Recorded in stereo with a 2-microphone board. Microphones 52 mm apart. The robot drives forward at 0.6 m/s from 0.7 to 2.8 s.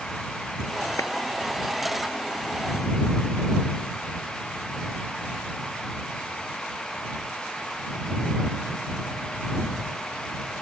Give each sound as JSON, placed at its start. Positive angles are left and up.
{"t": 1.0, "sound": "a clap", "side_deg": 85}